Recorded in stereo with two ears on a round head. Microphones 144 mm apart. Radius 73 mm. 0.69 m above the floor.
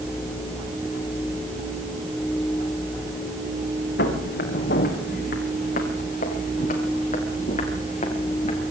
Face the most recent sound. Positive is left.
turn(degrees=45)  # may be behind; listen again after turning